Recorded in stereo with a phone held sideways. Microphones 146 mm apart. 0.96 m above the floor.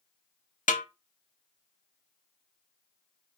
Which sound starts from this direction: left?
A snare drum, at 0.7 s.